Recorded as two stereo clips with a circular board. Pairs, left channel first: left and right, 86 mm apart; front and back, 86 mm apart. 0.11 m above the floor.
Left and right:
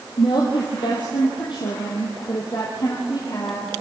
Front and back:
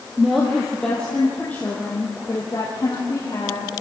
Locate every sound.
0.2 s a woman speaking: 95° left, 3 m; by 3.7 s 50° left, 5.5 m